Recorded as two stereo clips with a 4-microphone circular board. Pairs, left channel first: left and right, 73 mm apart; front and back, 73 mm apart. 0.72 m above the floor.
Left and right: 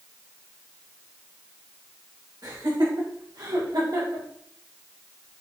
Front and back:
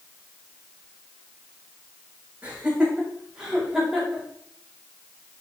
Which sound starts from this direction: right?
Laughter, at 2.4 s.